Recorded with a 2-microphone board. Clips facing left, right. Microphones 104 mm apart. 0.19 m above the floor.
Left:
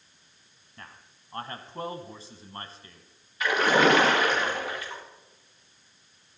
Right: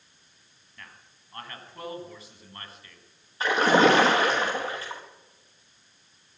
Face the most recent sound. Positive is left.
turn(degrees=-35)  # may be behind; listen again after turning